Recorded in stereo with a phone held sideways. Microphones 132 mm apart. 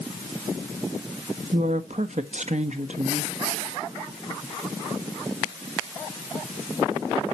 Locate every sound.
1.5 s a woman speaking: 60° right (ahead or behind), 1.1 m